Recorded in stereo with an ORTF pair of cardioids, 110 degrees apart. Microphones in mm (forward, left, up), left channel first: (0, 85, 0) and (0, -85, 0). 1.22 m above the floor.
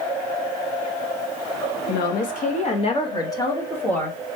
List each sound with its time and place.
1.9 s a woman speaking: 65° left, 1.1 m; by 4.2 s 5° left, 1.8 m